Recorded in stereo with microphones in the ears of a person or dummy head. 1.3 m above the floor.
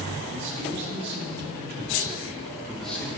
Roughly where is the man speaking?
Right.